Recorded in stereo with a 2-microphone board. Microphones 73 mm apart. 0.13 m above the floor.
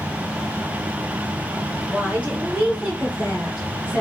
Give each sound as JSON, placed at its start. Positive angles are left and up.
{"t": 1.9, "sound": "a woman speaking", "side_deg": -25, "distance_m": 1.5}